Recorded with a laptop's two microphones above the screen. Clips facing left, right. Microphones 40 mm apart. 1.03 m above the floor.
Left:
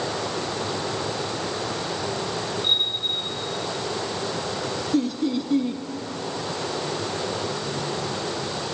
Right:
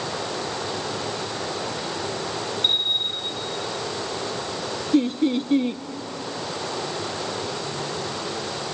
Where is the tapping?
No tapping in this recording.